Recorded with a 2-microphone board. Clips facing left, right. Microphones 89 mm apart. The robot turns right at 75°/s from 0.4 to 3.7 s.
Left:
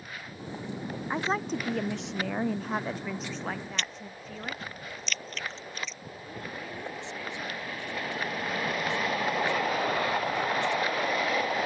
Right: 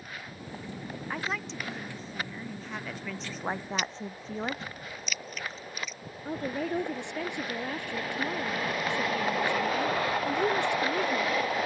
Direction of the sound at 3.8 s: 10° right (ahead or behind).